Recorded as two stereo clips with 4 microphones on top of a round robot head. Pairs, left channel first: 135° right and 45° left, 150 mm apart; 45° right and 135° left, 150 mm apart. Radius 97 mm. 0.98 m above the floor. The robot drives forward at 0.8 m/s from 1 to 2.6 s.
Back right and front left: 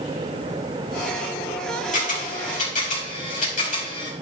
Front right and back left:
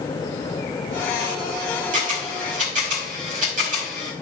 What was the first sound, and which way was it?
A camera shutter, straight behind.